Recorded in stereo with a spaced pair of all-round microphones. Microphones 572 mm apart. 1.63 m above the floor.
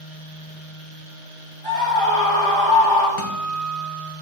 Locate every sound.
1.6 s a scream: 30° left (ahead or behind), 4 m
3.2 s a guitar: 65° left (ahead or behind), 1.0 m